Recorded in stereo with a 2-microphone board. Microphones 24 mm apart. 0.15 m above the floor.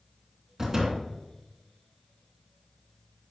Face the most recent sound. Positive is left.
turn(degrees=-30)  # may be behind; listen again after turning